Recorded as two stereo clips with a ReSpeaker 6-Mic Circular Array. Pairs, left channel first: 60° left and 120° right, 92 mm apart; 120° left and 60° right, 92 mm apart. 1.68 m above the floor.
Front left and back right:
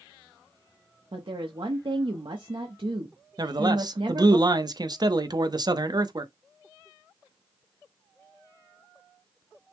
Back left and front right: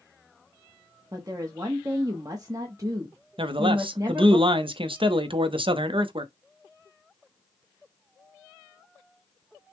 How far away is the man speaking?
About 0.6 m.